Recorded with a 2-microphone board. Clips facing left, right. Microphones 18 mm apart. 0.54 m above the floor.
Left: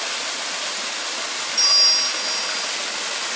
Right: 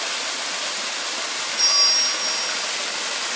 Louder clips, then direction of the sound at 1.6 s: Left 2 dB; 55° left (ahead or behind).